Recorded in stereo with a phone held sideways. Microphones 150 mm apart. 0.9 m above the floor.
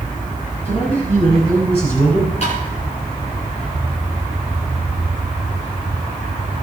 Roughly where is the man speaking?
Left.